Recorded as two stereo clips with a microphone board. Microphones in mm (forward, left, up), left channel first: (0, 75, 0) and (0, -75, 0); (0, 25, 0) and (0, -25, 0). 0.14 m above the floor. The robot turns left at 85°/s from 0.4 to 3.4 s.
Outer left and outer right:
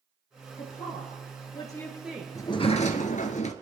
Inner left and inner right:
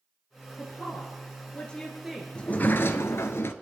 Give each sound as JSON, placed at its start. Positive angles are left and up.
{"t": 0.6, "sound": "a woman speaking", "side_deg": 45, "distance_m": 2.5}
{"t": 2.4, "sound": "a sliding door", "azimuth_deg": 155, "distance_m": 1.2}